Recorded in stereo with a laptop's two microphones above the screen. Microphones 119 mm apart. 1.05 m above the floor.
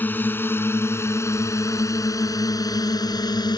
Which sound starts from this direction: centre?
A drone, at 0.0 s.